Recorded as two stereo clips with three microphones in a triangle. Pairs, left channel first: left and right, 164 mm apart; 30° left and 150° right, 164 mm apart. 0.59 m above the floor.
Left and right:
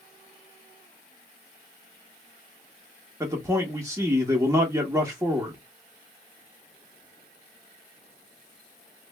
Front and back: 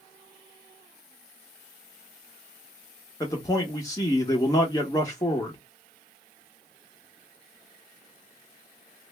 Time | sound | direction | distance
3.2 | a man speaking | 30° right | 1.0 m